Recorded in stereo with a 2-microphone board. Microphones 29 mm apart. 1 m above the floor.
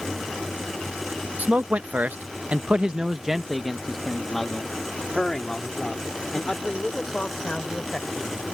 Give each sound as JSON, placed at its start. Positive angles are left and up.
{"t": 1.4, "sound": "a man speaking", "side_deg": -60}